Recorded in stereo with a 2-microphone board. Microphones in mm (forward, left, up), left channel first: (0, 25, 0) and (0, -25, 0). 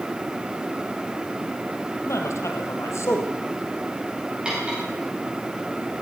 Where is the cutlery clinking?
15° right (ahead or behind), 6 m.